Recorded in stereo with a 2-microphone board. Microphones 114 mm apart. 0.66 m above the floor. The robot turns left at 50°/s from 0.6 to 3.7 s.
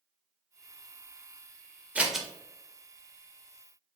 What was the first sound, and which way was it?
Scissors, 10° right (ahead or behind).